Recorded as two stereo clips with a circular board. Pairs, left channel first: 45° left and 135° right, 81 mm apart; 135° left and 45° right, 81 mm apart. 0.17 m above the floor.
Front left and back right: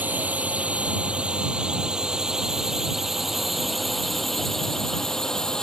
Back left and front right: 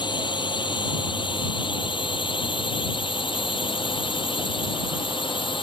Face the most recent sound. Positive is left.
turn(degrees=130)